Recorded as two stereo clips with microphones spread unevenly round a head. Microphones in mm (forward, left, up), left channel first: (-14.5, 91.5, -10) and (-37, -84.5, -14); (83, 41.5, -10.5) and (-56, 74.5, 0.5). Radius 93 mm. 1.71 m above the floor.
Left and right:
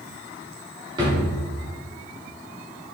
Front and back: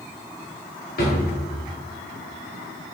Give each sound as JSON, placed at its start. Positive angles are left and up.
{"t": 1.0, "sound": "a drawer", "azimuth_deg": -30, "distance_m": 2.0}